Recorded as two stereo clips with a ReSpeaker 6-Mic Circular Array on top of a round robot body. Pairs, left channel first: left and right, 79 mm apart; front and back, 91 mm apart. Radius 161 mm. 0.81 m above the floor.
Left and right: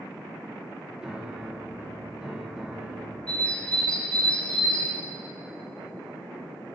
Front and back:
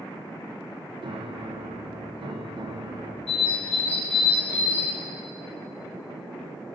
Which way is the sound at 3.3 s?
15° left.